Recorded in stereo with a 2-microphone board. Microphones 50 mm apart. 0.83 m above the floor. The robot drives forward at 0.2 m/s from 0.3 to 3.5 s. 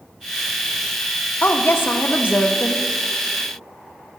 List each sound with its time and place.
1.4 s a woman speaking: 40° left (ahead or behind), 0.6 m; by 2.9 s 50° left (ahead or behind), 0.5 m